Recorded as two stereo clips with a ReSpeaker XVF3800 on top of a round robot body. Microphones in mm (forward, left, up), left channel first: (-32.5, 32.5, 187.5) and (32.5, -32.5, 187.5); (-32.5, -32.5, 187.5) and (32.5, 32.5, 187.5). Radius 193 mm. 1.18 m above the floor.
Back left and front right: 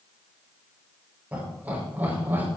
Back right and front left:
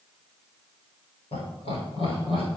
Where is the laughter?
120° right, 5 m; by 2.5 s 115° right, 5.5 m.